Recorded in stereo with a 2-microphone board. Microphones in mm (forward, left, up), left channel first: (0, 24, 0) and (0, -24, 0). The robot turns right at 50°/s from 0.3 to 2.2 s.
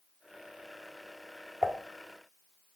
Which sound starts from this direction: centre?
Dishes clattering, at 1.6 s.